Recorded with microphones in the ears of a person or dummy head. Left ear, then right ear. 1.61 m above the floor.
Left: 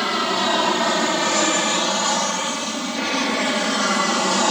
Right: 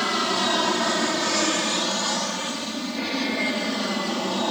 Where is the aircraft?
15° left (ahead or behind); by 4.5 s 50° left (ahead or behind).